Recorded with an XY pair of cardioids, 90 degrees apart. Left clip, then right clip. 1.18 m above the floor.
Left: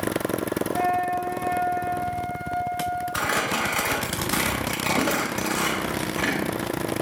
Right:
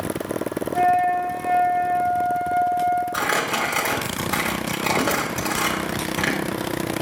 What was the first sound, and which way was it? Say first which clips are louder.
A flute: right 7 dB; 30° right.